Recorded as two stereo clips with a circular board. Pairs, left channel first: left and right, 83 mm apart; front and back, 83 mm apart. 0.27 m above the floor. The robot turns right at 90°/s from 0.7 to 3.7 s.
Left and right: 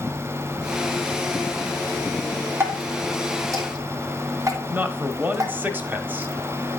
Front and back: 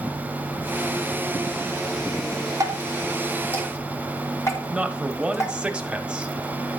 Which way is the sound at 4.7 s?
120° right.